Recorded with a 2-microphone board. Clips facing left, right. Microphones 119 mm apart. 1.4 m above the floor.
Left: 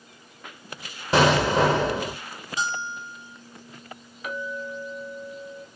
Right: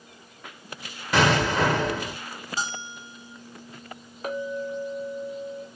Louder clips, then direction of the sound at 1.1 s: Left 3 dB; 30° left (ahead or behind).